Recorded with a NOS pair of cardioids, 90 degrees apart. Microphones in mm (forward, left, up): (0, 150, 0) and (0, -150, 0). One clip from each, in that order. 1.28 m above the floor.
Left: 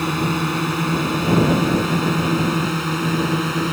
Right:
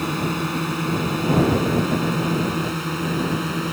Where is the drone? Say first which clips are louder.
Left 3 dB; 25° left; by 3.7 s 30° left.